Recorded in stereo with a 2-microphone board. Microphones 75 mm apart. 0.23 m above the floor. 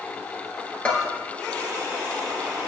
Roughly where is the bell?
Centre.